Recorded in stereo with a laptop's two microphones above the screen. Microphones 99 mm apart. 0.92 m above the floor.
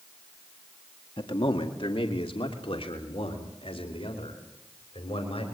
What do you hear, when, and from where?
1.2 s a man speaking: 60° left (ahead or behind), 1.7 m; by 5.5 s 75° left (ahead or behind), 5 m